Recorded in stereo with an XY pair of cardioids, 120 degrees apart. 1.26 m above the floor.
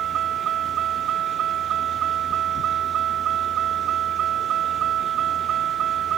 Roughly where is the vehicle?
Ahead right.